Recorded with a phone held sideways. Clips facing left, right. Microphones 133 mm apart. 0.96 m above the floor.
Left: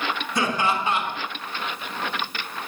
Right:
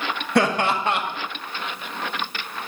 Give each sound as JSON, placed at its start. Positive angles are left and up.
{"t": 0.3, "sound": "laughter", "side_deg": -65, "distance_m": 1.8}